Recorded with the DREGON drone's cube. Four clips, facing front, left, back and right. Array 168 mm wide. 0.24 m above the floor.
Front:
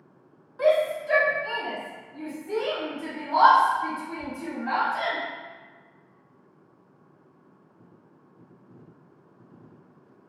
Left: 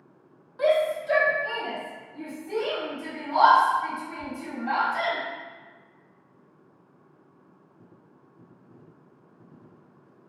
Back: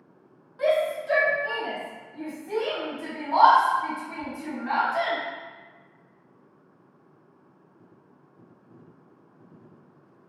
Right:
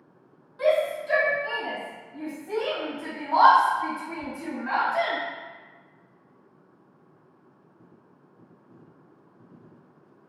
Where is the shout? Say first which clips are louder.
Even, front 2 dB; 80° left, 1.0 m; by 5.2 s 130° right, 2.5 m.